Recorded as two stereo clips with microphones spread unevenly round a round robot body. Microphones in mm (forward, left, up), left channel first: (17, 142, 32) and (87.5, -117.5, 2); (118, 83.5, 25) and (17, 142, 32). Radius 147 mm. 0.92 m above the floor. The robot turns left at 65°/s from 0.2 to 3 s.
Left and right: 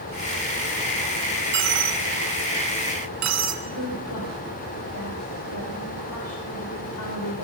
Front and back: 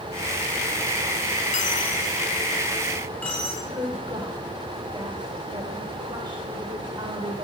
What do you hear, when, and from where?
1.5 s a dropped coin: 20° right, 2 m; by 3.5 s 115° right, 2 m
3.6 s a woman speaking: 95° left, 3 m